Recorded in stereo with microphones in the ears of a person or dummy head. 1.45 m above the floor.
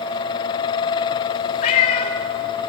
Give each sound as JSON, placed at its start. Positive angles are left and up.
{"t": 1.6, "sound": "a cat meowing", "side_deg": 35, "distance_m": 1.3}